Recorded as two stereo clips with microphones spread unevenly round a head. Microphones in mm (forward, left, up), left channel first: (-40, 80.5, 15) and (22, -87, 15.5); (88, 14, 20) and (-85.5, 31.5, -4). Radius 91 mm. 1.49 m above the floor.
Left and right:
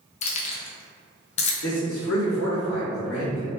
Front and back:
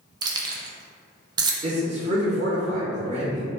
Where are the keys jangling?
110° left, 0.5 m.